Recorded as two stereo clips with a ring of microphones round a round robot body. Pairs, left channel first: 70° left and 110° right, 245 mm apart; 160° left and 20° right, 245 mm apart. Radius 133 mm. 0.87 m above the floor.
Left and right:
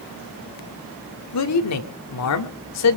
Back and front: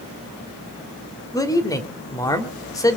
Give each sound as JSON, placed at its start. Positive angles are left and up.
{"t": 1.3, "sound": "a man speaking", "azimuth_deg": 80, "distance_m": 2.5}